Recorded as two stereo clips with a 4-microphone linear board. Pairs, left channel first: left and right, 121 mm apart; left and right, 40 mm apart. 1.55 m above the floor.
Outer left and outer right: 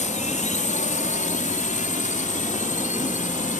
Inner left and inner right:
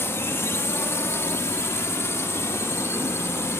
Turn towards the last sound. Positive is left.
turn(degrees=75)  # may be behind; listen again after turning